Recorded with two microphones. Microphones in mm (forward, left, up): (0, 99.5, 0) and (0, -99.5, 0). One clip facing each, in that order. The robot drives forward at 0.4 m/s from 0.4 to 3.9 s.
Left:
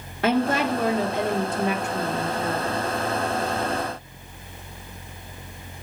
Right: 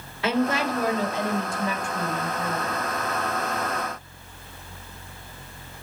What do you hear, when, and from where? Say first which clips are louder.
0.2 s a woman speaking: left 2 dB; 55° left (ahead or behind), 1.9 m; by 2.8 s 80° left, 1.5 m